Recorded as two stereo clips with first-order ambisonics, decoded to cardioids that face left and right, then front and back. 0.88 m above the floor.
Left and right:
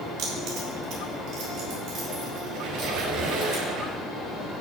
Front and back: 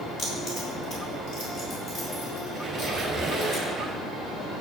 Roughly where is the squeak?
Right.